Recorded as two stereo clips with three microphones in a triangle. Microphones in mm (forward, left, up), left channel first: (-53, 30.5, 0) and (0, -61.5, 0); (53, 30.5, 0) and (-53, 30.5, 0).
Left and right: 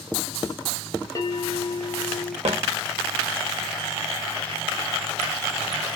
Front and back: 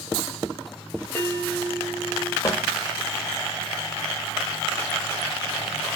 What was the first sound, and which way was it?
A bell, 75° left.